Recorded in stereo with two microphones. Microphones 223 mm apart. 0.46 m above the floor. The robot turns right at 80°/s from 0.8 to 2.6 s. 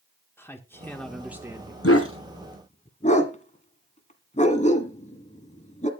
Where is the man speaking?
10° left (ahead or behind), 1.0 m; by 1.7 s 20° right (ahead or behind), 1.0 m.